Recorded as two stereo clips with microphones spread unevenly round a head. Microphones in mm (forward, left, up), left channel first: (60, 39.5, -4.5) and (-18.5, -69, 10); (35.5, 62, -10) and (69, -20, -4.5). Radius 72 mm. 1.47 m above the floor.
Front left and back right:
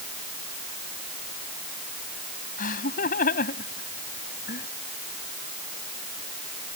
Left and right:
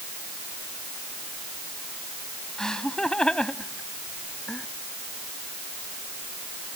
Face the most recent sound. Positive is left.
turn(degrees=35)